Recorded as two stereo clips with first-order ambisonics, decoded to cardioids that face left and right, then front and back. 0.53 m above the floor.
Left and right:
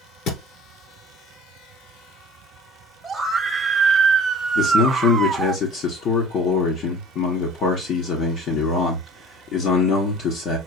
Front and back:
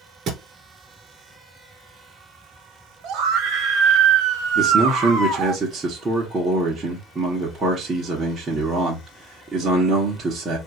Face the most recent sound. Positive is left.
turn(degrees=115)